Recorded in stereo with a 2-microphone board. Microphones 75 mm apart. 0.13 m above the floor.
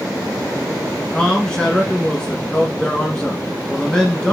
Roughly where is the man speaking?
Centre.